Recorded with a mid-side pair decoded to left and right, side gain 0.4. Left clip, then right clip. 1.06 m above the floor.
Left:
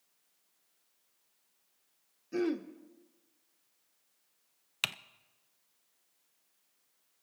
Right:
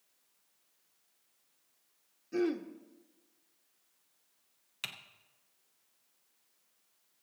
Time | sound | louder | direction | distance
2.3 | throat clearing | even | 15° left | 0.9 m
4.8 | typing on a keyboard | left 7 dB | 70° left | 0.5 m